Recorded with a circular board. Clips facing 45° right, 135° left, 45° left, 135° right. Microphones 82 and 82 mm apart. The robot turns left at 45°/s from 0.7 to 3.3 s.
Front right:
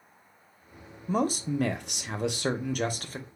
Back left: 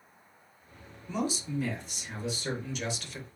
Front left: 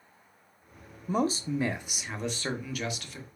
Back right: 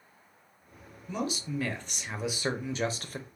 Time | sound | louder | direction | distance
1.1 | a man speaking | front right 5 dB, front left 5 dB | straight ahead | 0.5 m